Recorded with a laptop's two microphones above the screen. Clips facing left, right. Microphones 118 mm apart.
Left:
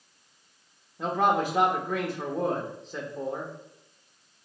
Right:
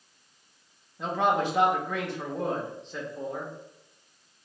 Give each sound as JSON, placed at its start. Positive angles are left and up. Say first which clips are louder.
{"t": 1.0, "sound": "a man speaking", "louder": "left 1 dB", "side_deg": 10, "distance_m": 0.7}